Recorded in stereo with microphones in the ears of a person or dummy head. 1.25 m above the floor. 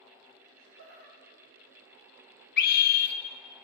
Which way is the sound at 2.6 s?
50° left (ahead or behind).